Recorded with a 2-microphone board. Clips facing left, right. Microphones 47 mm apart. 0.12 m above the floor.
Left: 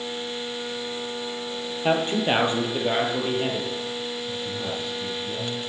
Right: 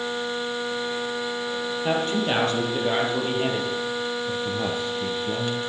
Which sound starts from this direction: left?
A man speaking, at 1.8 s.